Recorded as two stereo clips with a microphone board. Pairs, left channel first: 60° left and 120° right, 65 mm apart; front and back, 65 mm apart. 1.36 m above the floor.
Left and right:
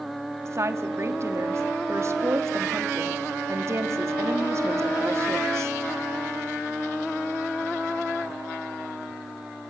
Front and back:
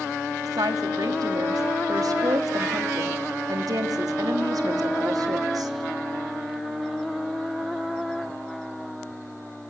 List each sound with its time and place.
0.5 s a woman speaking: 160° right, 2.5 m